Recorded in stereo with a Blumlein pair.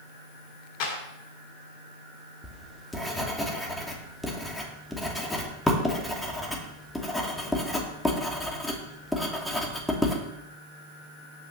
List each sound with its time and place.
0.8 s a clap: 45° left, 7 m
2.4 s writing: 5° left, 2.5 m